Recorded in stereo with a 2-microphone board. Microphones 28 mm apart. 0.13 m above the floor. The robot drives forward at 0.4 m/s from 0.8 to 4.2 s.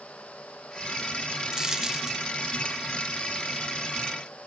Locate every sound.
1.5 s a dropped coin: 20° right (ahead or behind)